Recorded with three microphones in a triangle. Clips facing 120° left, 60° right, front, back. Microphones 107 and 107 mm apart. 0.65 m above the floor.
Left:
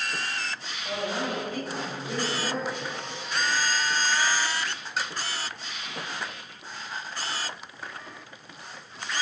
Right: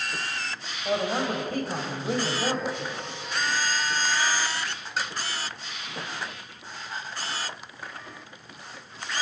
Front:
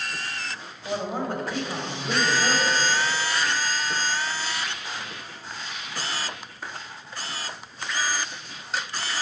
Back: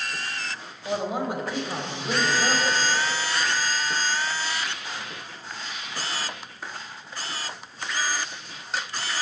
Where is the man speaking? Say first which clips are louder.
Right 4 dB, back 1 dB; 105° right, 3 m.